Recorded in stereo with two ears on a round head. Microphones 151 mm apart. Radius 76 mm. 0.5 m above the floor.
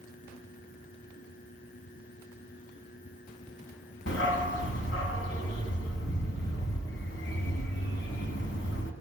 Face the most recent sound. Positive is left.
turn(degrees=80)